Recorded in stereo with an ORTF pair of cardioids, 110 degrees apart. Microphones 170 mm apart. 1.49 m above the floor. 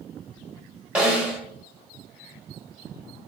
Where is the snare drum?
5° right, 1.1 m.